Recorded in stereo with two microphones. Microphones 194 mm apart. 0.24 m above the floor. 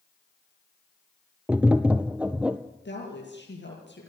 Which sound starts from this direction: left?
A woman speaking, at 2.9 s.